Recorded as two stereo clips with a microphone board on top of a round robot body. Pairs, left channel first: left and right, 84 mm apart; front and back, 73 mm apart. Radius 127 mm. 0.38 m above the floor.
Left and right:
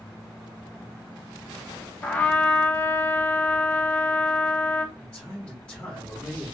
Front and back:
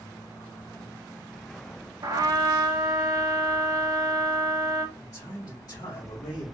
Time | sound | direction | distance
2.0 | a trumpet | 160° left | 0.8 m
5.0 | a man speaking | 15° left | 1.9 m